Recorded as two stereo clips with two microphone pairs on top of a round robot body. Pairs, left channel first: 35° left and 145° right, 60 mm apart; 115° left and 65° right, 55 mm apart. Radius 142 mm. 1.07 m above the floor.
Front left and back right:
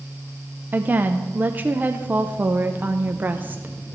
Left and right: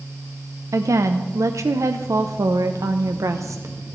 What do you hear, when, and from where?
0.7 s a woman speaking: 85° right, 0.6 m